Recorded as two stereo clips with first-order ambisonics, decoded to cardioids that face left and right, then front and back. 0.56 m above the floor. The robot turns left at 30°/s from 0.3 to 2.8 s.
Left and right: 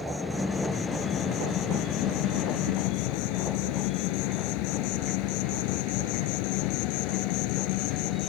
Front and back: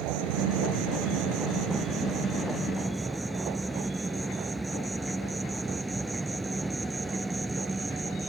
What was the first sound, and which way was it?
An insect, 175° left.